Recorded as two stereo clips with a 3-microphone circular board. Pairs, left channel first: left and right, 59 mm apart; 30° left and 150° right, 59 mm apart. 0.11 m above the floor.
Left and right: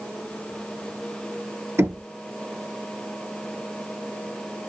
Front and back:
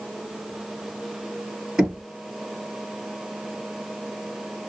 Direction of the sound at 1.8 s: 75° right.